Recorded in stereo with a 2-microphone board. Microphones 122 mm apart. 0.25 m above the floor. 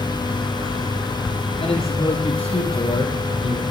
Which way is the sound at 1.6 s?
40° left (ahead or behind).